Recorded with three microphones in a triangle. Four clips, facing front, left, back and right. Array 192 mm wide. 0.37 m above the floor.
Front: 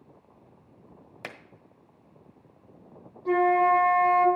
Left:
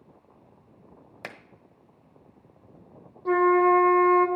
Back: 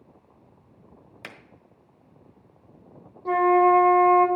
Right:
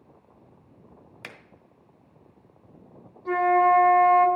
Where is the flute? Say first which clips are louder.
Even, back 3 dB; 125° left, 1.5 m.